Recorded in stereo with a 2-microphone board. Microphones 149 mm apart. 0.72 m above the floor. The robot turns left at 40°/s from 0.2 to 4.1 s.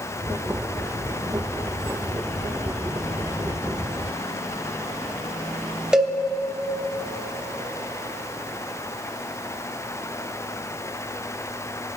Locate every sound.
5.9 s a cowbell: 5° right (ahead or behind), 1.0 m